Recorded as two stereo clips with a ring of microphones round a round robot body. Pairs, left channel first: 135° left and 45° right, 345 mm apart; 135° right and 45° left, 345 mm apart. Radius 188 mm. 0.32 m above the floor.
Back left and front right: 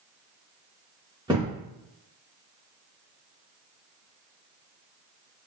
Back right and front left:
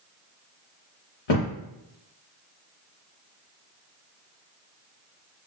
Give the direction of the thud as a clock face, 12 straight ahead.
4 o'clock.